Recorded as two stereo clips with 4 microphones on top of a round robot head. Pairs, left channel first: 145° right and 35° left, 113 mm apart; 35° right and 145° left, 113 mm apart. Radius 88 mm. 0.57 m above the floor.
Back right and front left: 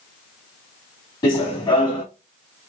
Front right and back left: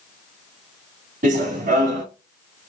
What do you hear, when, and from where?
1.2 s running footsteps: 160° left, 1.8 m